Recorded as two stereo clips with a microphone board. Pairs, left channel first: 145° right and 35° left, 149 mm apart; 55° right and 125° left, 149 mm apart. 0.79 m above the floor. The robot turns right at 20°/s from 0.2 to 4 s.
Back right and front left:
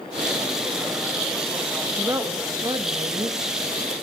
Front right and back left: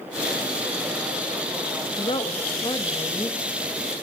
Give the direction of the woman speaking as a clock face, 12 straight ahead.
1 o'clock.